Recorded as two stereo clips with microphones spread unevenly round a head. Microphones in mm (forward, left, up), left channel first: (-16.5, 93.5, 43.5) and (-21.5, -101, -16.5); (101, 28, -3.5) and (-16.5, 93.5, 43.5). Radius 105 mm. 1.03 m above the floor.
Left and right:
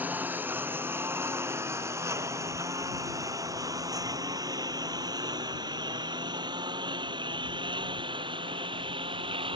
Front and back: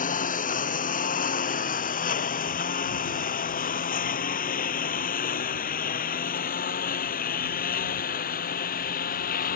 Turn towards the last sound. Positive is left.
turn(degrees=-25)